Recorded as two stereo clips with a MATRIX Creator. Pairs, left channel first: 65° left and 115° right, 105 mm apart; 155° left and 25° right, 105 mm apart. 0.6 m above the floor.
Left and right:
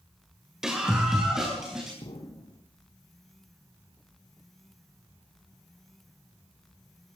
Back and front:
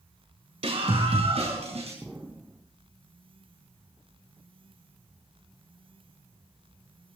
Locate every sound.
0.6 s a scream: 30° right, 2 m
2.0 s an explosion: 50° left, 2 m